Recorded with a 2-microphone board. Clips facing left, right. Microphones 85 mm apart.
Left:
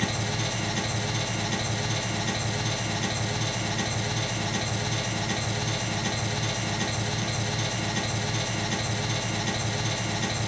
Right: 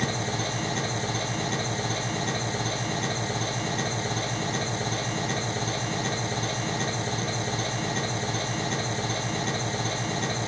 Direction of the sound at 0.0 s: 30° right (ahead or behind).